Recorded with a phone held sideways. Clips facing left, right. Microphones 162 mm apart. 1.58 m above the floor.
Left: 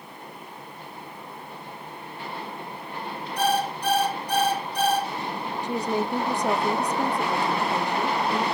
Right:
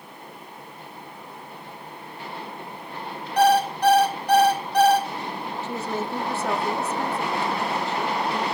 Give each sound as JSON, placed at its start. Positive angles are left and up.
{"t": 3.4, "sound": "an alarm clock", "side_deg": -75, "distance_m": 5.0}
{"t": 5.6, "sound": "a woman speaking", "side_deg": 15, "distance_m": 0.9}